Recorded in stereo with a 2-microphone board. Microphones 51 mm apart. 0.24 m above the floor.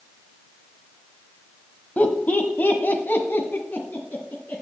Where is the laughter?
35° left (ahead or behind), 1.0 m; by 4.6 s 40° left (ahead or behind), 2.5 m.